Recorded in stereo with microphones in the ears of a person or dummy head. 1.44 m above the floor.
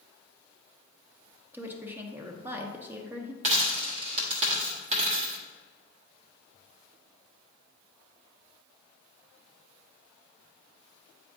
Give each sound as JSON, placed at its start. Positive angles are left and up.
{"t": 1.5, "sound": "a woman speaking", "side_deg": -10, "distance_m": 0.9}
{"t": 3.4, "sound": "a dropped coin", "side_deg": -40, "distance_m": 1.4}